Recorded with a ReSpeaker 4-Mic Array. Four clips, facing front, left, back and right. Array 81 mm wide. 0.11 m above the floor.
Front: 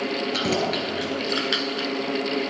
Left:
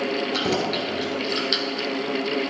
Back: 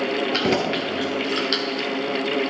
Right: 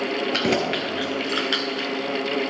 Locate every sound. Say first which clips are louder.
0.3 s keys jangling: right 1 dB, back 2 dB; 120° right, 1.5 m; by 1.9 s 40° right, 1.2 m